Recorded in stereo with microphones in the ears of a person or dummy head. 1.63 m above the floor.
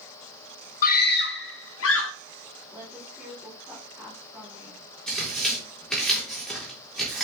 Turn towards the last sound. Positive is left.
turn(degrees=5)  # may be behind; listen again after turning